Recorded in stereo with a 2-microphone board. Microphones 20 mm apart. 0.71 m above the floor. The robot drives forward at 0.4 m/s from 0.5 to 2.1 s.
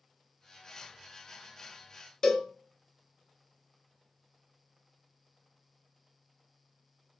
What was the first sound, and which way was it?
A cowbell, 25° left (ahead or behind).